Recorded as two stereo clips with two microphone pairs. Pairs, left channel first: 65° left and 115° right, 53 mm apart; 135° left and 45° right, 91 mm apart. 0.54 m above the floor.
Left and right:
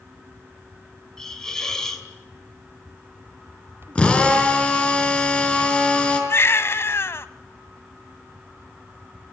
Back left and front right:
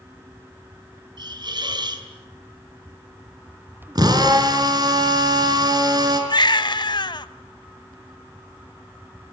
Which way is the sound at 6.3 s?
100° left.